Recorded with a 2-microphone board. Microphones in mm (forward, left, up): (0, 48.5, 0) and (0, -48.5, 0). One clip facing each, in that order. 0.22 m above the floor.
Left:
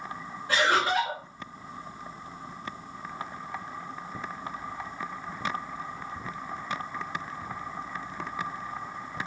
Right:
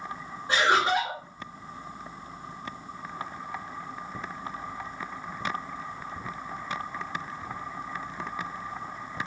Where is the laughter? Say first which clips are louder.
Right 1 dB; 25° right (ahead or behind), 2.5 m.